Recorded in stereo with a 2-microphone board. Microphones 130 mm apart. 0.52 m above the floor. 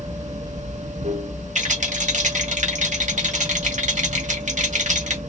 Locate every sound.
0.0 s running water: 70° right (ahead or behind), 1.1 m
1.6 s a rattle: 70° right (ahead or behind), 1.3 m